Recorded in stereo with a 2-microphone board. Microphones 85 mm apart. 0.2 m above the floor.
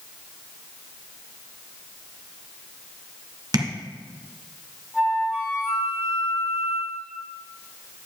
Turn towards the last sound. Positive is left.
turn(degrees=-15)  # may be behind; listen again after turning